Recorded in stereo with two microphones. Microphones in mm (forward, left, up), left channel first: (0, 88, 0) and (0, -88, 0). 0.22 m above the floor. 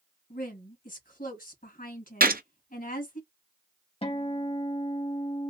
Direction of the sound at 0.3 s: 50° left (ahead or behind).